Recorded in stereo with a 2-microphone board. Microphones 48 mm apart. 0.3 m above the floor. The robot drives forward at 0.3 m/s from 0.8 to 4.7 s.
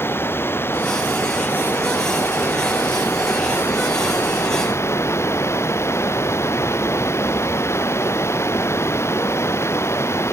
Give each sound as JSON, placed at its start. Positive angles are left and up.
{"t": 0.0, "sound": "running water", "side_deg": 55}